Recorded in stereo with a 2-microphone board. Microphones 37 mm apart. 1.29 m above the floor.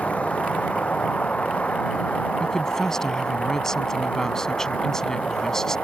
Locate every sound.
0.0 s a vehicle: 40° left (ahead or behind)
2.4 s a woman speaking: 15° left (ahead or behind)